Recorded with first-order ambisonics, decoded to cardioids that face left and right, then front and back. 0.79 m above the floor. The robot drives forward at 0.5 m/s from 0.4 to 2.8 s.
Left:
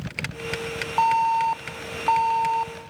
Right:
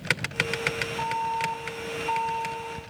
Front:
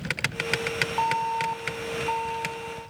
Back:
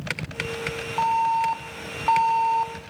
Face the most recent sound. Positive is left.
turn(degrees=140)